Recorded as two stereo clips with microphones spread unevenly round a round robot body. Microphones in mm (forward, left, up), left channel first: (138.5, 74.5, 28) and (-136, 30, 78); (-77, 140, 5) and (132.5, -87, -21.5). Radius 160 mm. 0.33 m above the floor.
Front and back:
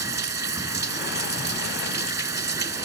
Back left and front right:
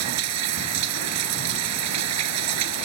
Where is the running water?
90° right.